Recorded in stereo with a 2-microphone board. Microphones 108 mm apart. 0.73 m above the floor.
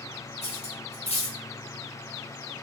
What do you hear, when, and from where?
0.4 s cutlery clinking: 80° left, 0.9 m